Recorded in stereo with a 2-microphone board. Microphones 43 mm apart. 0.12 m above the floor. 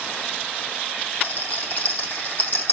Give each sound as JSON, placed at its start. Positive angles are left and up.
{"t": 1.2, "sound": "a rattle", "side_deg": 40, "distance_m": 4.0}